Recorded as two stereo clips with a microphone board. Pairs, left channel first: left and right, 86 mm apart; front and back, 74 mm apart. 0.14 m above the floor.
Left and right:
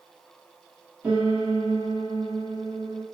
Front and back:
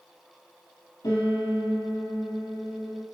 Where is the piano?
15° right, 3 m.